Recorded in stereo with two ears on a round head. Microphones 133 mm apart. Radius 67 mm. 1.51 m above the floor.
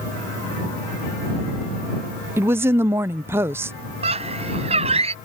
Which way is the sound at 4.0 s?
45° right (ahead or behind).